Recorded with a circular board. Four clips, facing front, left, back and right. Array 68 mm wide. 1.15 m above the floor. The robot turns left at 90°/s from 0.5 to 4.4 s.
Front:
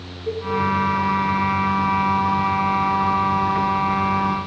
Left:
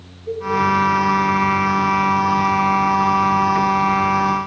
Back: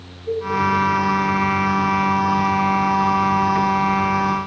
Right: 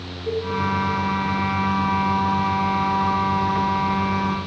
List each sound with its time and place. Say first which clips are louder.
0.3 s a cowbell: left 1 dB, back 2 dB; 35° right, 8.5 m